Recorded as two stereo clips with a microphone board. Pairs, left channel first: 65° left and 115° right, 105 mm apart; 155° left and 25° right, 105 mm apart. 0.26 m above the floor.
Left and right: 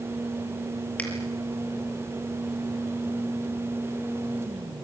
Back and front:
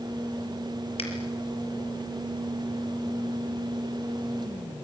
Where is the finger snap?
145° left, 5.5 m.